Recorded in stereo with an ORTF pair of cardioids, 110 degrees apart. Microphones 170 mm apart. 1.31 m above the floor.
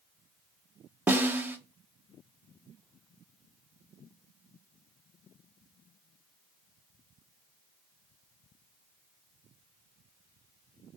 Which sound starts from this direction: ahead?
A snare drum, at 1.1 s.